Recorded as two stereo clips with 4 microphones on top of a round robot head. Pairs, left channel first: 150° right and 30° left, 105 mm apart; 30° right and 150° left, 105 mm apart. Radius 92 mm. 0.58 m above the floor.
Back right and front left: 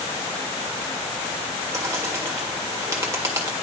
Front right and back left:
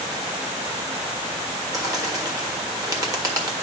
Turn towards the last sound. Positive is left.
turn(degrees=95)